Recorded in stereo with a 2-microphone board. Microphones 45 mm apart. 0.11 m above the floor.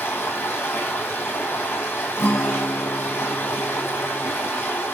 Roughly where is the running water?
Left.